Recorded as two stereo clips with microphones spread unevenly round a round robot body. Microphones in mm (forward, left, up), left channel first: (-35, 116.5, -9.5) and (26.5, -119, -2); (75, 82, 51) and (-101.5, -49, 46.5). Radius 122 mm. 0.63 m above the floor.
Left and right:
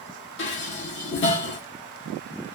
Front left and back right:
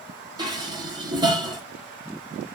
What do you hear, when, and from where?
0.4 s dishes clattering: 145° left, 0.9 m